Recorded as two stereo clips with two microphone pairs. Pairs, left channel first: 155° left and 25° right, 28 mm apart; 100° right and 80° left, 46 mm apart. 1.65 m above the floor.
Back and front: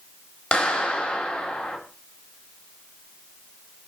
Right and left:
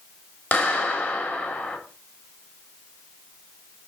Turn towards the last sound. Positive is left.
turn(degrees=-145)